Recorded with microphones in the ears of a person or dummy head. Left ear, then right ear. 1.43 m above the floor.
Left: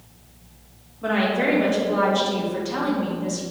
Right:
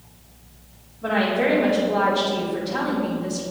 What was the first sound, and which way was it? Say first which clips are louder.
A woman speaking: right 1 dB; 40° left (ahead or behind).